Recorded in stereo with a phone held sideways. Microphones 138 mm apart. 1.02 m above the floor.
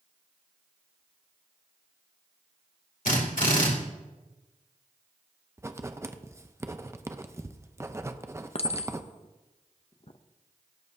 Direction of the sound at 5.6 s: 20° right (ahead or behind).